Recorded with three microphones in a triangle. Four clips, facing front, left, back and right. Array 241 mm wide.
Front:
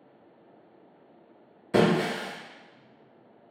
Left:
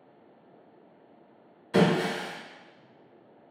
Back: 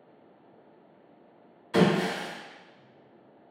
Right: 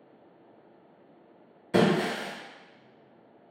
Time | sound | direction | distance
1.7 | breaking glass | 30° right | 0.8 m